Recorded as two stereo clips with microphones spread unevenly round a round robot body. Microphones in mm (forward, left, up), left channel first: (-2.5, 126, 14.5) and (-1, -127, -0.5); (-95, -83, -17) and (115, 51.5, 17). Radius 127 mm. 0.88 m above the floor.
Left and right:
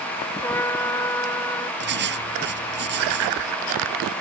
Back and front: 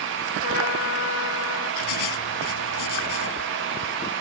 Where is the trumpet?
170° left.